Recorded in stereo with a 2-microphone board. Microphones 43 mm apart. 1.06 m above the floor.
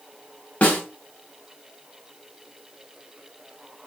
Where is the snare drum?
35° left (ahead or behind), 0.9 m.